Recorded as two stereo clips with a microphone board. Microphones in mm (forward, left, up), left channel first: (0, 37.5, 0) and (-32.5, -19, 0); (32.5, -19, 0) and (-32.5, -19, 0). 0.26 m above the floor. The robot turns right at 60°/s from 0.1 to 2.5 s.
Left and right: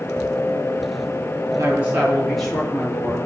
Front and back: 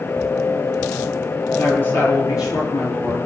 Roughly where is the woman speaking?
Right.